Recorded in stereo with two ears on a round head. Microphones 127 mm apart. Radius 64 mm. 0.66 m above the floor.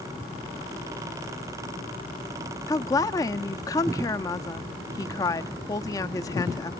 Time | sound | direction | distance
2.7 | a woman speaking | 25° left (ahead or behind) | 0.7 m